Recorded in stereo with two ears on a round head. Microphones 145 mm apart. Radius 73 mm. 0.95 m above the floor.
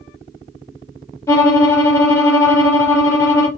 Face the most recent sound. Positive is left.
turn(degrees=20)  # may be behind; listen again after turning